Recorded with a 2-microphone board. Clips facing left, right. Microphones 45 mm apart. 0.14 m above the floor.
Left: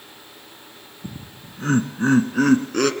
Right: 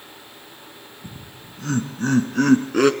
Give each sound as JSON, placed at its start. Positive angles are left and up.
{"t": 1.0, "sound": "laughter", "side_deg": 55, "distance_m": 1.9}